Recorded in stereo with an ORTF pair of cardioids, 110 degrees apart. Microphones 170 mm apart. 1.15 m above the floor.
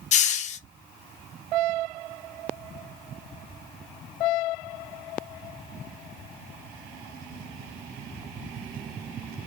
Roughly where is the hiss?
Ahead left.